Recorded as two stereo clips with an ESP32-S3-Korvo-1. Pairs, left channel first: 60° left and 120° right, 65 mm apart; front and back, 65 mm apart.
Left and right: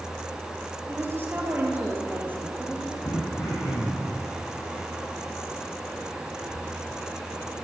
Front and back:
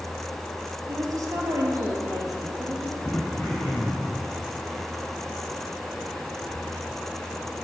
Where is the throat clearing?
65° left, 3 m.